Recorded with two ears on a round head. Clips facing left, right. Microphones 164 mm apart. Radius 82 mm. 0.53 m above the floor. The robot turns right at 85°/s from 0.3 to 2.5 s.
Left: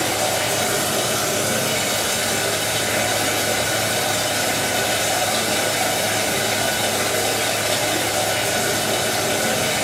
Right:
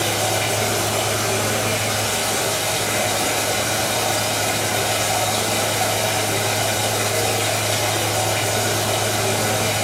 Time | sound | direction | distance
0.0 | running water | 5° right | 1.7 m